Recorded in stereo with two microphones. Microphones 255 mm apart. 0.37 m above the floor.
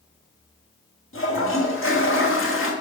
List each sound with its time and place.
1.1 s a toilet flushing: 55° left (ahead or behind), 1.3 m